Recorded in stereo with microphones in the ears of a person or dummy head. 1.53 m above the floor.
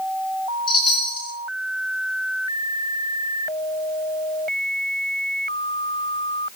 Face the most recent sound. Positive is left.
turn(degrees=25)  # may be behind; listen again after turning